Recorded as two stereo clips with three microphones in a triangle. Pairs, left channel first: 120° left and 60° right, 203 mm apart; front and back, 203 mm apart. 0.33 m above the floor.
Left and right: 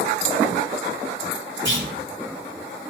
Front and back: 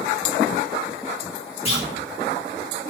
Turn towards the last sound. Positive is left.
turn(degrees=-60)